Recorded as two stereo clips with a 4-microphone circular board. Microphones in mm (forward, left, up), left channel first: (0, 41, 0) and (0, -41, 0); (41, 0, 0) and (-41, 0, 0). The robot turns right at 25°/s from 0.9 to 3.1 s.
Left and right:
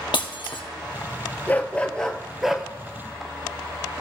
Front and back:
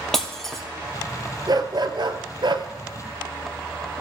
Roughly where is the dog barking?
Behind left.